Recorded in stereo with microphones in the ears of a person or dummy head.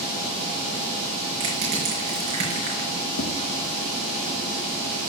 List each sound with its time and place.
1.4 s crushing: 40° right (ahead or behind), 4 m
3.2 s tapping: 80° left, 1.6 m